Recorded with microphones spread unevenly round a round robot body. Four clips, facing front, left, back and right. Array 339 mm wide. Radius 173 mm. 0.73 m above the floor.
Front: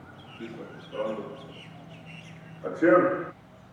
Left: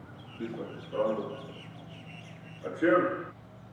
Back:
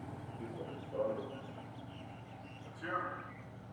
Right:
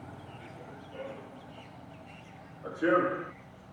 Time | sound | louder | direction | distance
0.4 | running footsteps | left 9 dB, front 6 dB | 70° left | ?